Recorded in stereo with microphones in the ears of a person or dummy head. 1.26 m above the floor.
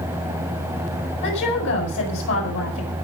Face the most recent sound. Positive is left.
turn(degrees=65)  # may be behind; listen again after turning